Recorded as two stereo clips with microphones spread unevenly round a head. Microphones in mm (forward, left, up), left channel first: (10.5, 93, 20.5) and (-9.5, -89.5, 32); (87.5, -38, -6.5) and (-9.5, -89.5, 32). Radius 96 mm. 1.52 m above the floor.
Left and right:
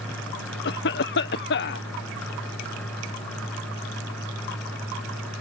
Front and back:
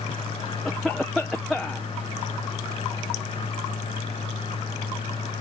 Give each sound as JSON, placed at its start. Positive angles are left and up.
{"t": 0.7, "sound": "a cough", "azimuth_deg": 115}